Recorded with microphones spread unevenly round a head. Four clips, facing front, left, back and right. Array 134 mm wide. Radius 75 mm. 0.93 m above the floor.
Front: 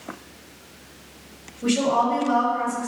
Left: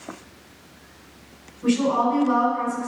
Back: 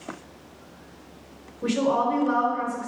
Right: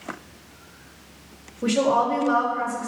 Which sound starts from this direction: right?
A woman speaking, at 1.6 s.